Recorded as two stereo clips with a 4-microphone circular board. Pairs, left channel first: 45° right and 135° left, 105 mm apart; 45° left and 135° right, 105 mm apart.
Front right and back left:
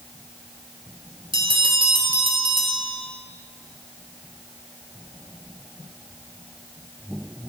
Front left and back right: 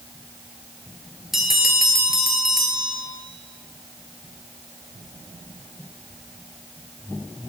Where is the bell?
140° left, 1.3 m.